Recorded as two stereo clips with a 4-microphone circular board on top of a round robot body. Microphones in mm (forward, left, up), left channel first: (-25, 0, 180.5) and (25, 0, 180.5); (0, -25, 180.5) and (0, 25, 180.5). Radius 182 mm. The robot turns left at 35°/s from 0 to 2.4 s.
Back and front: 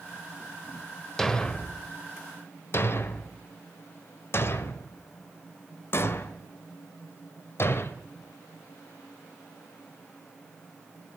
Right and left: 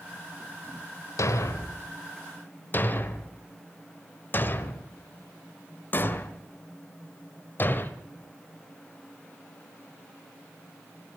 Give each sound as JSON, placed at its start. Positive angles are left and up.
{"t": 1.2, "sound": "a thud", "azimuth_deg": -100, "distance_m": 1.3}